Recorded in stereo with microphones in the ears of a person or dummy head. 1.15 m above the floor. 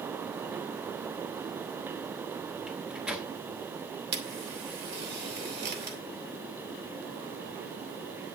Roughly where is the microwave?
Centre.